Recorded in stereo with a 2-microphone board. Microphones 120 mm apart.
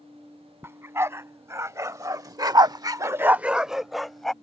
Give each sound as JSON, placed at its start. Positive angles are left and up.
{"t": 0.6, "sound": "a dog barking", "side_deg": -20}